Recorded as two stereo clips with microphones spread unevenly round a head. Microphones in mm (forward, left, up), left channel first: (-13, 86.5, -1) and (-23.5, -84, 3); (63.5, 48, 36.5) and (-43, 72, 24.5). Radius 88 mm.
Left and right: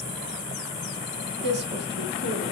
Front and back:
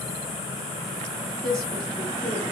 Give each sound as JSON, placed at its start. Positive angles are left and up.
{"t": 1.4, "sound": "a woman speaking", "azimuth_deg": -120, "distance_m": 1.1}